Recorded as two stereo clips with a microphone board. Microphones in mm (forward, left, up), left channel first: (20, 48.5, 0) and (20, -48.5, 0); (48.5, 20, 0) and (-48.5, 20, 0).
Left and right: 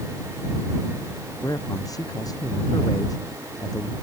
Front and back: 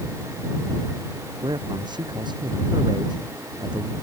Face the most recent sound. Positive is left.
turn(degrees=140)